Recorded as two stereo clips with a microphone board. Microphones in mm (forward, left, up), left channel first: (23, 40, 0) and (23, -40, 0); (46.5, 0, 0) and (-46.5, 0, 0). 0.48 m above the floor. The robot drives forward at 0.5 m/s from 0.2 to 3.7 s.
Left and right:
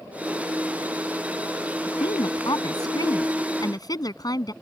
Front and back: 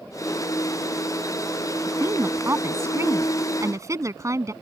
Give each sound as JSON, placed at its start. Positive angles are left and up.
{"t": 1.9, "sound": "a woman speaking", "azimuth_deg": 115}